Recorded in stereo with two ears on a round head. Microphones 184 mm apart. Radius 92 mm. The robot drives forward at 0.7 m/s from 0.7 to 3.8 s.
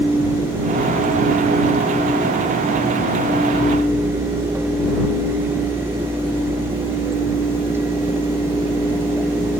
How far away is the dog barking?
No dog barking in this recording.